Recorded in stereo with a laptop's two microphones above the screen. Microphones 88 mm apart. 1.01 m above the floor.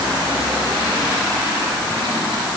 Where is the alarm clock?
No alarm clock in this recording.